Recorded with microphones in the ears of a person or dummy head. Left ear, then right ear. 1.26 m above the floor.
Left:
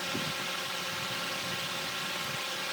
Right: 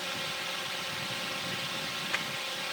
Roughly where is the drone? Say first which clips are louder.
Left 1 dB; centre.